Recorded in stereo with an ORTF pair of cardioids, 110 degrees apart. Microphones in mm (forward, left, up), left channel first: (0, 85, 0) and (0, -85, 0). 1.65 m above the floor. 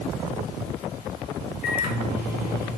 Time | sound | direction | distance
1.6 | a microwave | 65° left | 1.1 m